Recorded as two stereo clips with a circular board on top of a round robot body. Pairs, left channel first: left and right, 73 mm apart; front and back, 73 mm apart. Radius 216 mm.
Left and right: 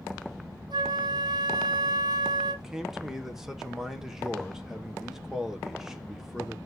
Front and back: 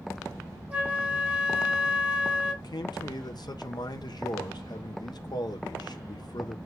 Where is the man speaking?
5° right, 1.6 m.